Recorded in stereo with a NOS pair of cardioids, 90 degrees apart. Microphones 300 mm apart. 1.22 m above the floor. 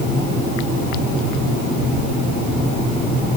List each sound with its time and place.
Only background noise.